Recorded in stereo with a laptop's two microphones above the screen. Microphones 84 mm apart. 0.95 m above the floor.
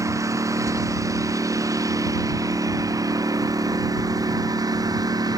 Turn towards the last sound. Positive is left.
turn(degrees=-50)  # may be behind; listen again after turning